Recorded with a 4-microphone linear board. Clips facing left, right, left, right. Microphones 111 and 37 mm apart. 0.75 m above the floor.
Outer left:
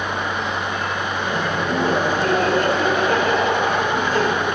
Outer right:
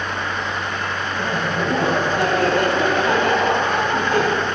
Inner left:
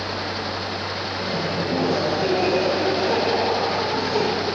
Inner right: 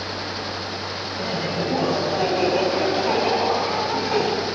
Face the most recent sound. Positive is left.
turn(degrees=-60)  # may be behind; listen again after turning